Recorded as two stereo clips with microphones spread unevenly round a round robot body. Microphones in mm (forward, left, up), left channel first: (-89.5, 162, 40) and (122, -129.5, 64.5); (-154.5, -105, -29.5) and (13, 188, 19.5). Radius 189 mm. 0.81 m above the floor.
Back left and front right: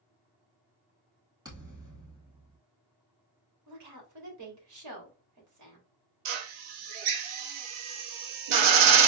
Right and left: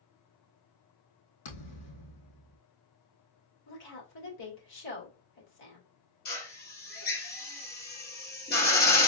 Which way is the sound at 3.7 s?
100° right.